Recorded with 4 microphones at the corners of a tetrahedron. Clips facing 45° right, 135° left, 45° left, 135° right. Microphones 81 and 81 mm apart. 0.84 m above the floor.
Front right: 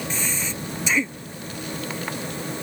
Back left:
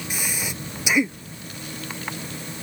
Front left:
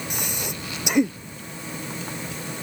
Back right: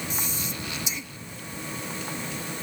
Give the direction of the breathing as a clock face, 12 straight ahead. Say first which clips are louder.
Front right 2 dB, front left 2 dB; 10 o'clock.